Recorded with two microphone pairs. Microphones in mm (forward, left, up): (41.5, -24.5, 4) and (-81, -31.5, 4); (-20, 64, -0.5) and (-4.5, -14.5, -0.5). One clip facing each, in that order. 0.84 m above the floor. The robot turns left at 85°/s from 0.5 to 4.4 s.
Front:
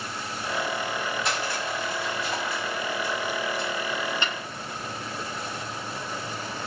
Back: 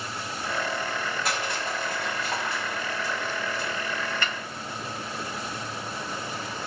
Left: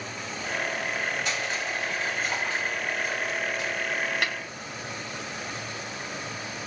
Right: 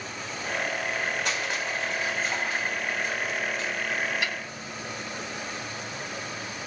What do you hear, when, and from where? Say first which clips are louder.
1.2 s crushing: front 1 dB, even; 90° right, 5 m; by 3.7 s 60° left, 5 m
4.2 s a snare drum: front 1 dB, left 1 dB; 70° left, 1.3 m; by 4.3 s 60° left, 1.3 m